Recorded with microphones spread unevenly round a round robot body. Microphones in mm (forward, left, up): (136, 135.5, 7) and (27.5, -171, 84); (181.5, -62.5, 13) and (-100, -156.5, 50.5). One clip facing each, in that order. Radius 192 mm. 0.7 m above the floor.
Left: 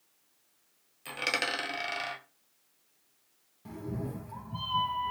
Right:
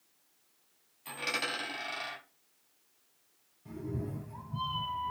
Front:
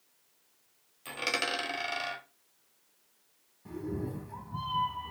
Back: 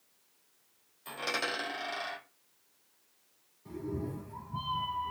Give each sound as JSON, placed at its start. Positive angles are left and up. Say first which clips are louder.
{"t": 1.1, "sound": "a dropped coin", "louder": "left 3 dB, front 1 dB", "azimuth_deg": 45, "distance_m": 1.2}
{"t": 3.6, "sound": "a cat meowing", "louder": "left 1 dB, front 1 dB", "azimuth_deg": 70, "distance_m": 0.7}